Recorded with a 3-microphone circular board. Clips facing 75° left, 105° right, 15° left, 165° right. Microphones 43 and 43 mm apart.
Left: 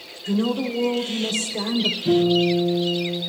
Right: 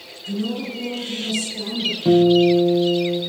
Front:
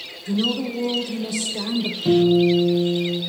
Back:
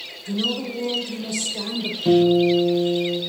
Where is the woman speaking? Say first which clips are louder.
Left 3 dB, front 2 dB; 90° left, 3 m.